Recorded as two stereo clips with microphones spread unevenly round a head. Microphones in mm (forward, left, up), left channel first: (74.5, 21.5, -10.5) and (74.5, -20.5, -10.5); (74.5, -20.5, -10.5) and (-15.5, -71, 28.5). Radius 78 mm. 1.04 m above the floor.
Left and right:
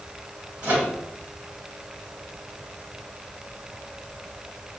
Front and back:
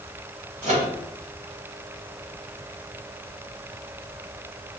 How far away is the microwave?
About 1.1 m.